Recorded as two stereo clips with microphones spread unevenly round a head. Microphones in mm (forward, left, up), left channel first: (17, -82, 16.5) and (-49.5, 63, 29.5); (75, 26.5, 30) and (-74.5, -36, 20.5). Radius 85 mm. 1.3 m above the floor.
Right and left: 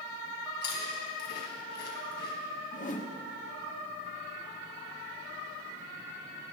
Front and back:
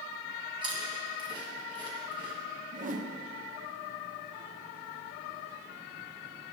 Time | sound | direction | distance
0.6 | chewing | 90° right | 3 m
2.7 | a whoosh | 110° right | 1.1 m